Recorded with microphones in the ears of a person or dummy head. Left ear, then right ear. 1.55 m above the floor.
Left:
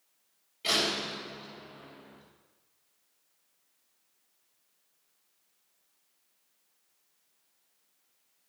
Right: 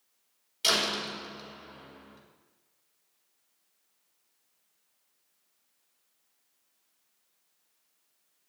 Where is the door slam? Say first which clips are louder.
Right 1 dB; 80° right, 4 m.